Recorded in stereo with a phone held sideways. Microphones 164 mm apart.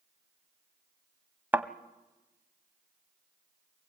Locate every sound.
1.5 s a thud: 10° right (ahead or behind), 0.7 m